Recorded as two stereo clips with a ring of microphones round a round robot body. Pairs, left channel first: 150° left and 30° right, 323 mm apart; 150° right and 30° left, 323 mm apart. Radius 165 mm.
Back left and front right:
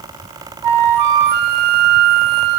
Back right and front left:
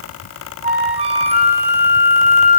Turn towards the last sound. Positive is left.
turn(degrees=-45)